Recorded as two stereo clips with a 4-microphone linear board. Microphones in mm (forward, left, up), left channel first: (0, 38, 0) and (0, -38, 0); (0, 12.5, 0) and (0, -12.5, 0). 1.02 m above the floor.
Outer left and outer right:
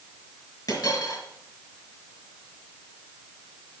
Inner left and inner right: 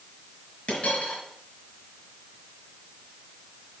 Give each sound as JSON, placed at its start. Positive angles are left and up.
{"t": 0.7, "sound": "a dropped coin", "side_deg": 55, "distance_m": 5.0}